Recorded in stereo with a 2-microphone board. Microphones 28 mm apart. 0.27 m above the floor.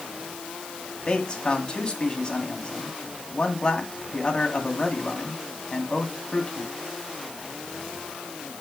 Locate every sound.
1.1 s a man speaking: 30° left (ahead or behind), 1.9 m